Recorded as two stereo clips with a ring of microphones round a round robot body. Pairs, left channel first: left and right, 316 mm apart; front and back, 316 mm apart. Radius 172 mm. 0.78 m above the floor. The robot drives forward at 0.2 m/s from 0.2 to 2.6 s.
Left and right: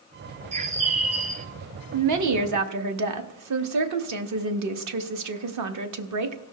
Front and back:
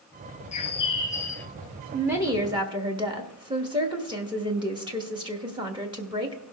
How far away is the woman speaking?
About 0.9 m.